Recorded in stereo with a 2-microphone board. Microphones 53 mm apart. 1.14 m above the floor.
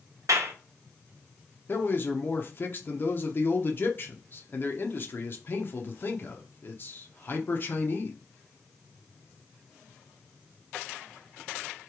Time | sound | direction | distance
0.3 | a clap | 85° right | 0.9 m
1.7 | a man speaking | 40° left (ahead or behind) | 0.9 m